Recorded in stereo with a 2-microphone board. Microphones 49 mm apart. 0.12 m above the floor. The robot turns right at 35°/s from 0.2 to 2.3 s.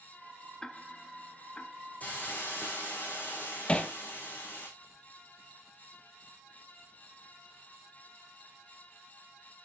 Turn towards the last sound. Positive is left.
turn(degrees=20)  # may be behind; listen again after turning